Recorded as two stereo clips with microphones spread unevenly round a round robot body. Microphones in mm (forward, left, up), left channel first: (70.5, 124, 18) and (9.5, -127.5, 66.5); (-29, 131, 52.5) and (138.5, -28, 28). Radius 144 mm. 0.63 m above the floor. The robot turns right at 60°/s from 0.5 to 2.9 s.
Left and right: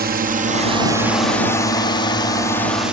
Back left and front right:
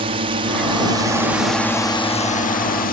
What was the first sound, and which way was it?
A drone, 65° right.